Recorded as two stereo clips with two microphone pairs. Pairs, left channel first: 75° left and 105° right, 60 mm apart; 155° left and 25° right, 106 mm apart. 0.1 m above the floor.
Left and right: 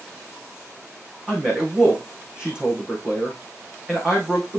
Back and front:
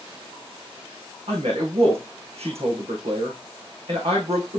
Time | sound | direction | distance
1.3 | a man speaking | 30° right | 4.5 m